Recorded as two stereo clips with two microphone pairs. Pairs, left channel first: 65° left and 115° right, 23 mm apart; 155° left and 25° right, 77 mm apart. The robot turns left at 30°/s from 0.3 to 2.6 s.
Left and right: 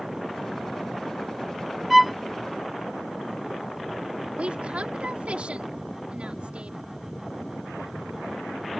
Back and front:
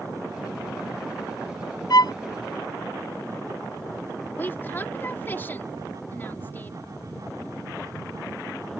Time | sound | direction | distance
1.9 | a violin | 170° left | ?
4.4 | a woman speaking | 140° right | ?